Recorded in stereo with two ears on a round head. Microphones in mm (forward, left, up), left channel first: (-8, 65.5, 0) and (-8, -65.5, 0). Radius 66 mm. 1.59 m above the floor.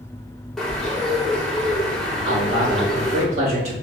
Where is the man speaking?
50° right (ahead or behind), 3.5 m.